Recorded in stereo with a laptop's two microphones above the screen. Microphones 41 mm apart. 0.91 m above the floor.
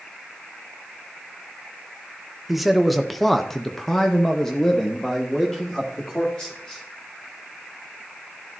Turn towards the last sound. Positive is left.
turn(degrees=15)  # may be behind; listen again after turning